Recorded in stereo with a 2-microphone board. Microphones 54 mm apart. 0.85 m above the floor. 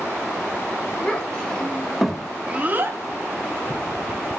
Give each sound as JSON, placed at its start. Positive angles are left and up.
{"t": 1.0, "sound": "a child speaking", "side_deg": 20, "distance_m": 1.7}